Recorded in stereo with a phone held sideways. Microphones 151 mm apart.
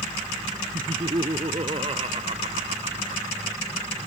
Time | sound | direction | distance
0.7 | laughter | 40° right (ahead or behind) | ?